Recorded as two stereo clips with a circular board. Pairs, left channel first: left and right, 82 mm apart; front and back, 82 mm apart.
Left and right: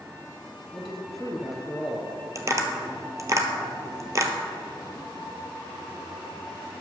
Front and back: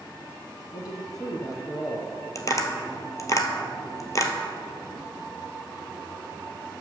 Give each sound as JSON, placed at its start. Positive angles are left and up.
{"t": 0.7, "sound": "a man speaking", "azimuth_deg": 0, "distance_m": 1.8}
{"t": 2.4, "sound": "tapping", "azimuth_deg": -45, "distance_m": 1.1}